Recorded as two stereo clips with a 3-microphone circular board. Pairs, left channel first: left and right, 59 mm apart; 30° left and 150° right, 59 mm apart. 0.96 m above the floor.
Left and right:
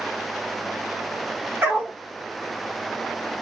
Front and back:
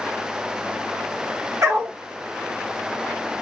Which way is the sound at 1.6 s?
130° right.